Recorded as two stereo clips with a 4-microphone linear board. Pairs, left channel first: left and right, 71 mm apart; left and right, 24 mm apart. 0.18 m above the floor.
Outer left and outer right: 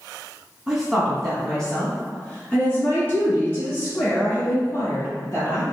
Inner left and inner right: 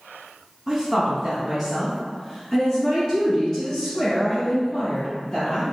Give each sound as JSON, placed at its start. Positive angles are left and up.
{"t": 0.7, "sound": "a woman speaking", "side_deg": -5, "distance_m": 1.1}